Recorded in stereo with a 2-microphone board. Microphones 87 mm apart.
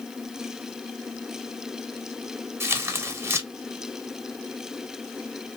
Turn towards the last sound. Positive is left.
turn(degrees=-25)  # may be behind; listen again after turning